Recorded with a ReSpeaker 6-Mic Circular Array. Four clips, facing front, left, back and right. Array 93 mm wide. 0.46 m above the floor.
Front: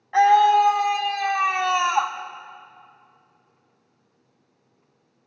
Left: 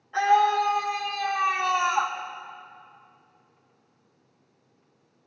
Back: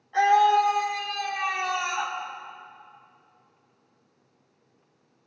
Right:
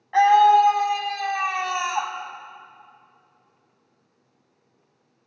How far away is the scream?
About 4 m.